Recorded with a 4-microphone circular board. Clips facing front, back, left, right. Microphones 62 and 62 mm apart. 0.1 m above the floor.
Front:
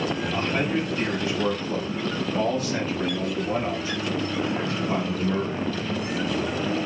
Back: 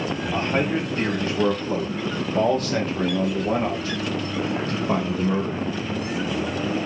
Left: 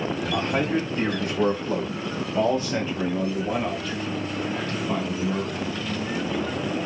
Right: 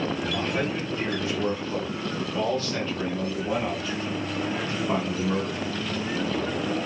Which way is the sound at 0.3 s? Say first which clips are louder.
Back 4 dB, left 3 dB; 125° left.